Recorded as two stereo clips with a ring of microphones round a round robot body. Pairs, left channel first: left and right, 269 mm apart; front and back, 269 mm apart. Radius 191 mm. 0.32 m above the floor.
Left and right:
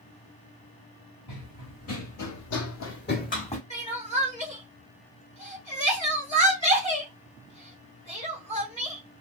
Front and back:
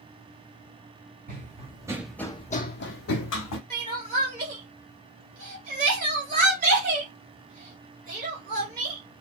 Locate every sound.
1.3 s running footsteps: 120° left, 1.0 m; by 3.6 s 20° left, 1.0 m
3.7 s crying: 145° left, 1.3 m